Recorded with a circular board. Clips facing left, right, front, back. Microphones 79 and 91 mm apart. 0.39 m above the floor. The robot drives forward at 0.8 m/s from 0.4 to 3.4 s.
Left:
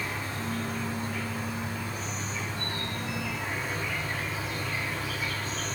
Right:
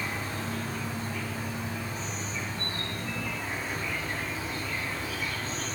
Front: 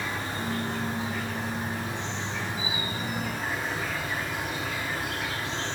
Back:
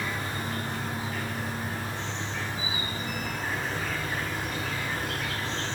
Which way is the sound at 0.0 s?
60° left.